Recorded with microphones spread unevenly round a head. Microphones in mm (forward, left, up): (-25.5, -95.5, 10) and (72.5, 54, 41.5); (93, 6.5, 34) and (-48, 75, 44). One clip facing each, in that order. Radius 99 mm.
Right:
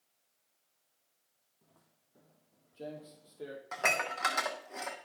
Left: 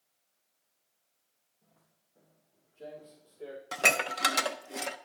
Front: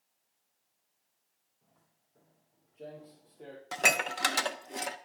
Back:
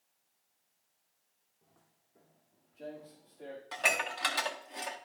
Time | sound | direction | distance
1.6 | footsteps | 145° right | 2 m
3.7 | dishes clattering | 15° left | 0.5 m